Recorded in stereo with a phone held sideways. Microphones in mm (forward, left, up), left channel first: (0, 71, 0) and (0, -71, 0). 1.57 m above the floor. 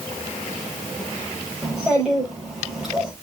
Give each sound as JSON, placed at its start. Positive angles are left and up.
{"t": 1.6, "sound": "a child speaking", "side_deg": -5, "distance_m": 5.5}